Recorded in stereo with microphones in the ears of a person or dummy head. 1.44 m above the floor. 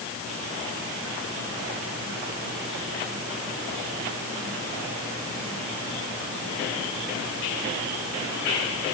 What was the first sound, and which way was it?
Only background noise.